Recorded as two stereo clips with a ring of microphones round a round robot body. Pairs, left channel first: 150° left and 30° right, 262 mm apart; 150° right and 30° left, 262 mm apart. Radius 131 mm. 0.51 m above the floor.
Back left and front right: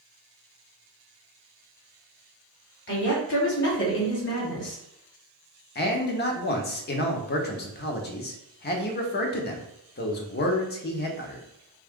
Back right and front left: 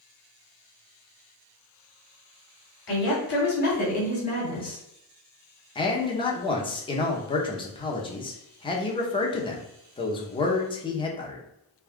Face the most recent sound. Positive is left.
turn(degrees=150)